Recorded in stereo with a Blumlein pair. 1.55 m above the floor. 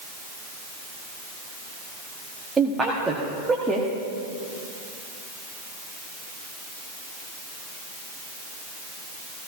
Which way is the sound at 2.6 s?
15° right.